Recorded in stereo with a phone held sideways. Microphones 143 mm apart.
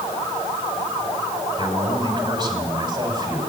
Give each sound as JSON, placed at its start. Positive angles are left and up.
{"t": 1.6, "sound": "a man speaking", "side_deg": -30, "distance_m": 5.5}